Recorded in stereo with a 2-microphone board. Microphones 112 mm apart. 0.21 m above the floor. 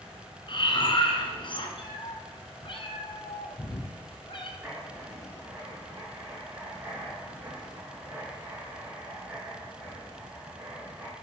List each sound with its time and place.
0.5 s breathing: 50° left (ahead or behind), 1.7 m
1.8 s a cat meowing: 50° left (ahead or behind), 1.3 m
4.6 s writing: 20° right (ahead or behind), 3 m